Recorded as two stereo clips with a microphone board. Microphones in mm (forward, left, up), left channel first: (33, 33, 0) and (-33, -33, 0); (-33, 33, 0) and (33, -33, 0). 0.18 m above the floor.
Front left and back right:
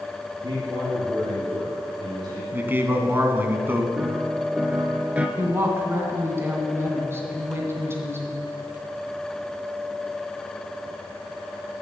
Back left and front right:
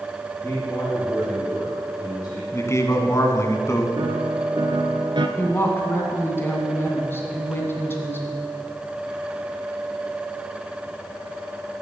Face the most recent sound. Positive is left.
turn(degrees=-175)